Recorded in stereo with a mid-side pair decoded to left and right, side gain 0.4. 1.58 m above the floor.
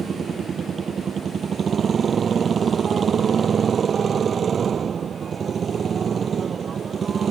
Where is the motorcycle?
45° right.